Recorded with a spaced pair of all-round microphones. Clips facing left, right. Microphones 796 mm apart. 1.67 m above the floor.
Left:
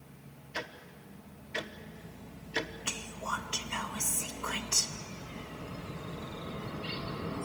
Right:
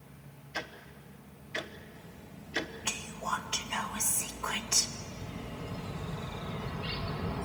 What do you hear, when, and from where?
0.5 s ticking: 5° left (ahead or behind), 0.9 m
2.9 s whispering: 30° right (ahead or behind), 1.3 m
5.0 s a bird: 30° right (ahead or behind), 1.2 m